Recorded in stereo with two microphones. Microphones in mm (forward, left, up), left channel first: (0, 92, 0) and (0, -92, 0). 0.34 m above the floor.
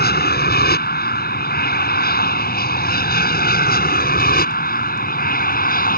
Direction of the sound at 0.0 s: 60° left (ahead or behind).